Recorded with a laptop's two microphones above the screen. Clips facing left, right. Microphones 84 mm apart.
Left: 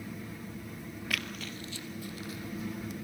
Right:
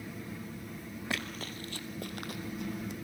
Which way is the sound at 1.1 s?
25° right (ahead or behind).